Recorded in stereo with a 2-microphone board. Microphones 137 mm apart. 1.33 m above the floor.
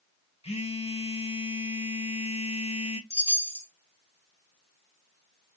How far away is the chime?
About 1.5 m.